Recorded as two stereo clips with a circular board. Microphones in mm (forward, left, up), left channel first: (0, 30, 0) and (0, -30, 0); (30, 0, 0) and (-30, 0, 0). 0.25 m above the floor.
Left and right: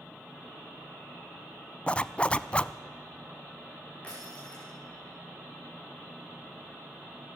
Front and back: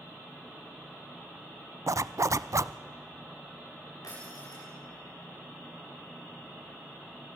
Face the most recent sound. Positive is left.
turn(degrees=20)